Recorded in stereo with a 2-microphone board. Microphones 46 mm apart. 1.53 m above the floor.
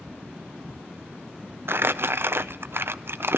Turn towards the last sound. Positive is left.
turn(degrees=-55)  # may be behind; listen again after turning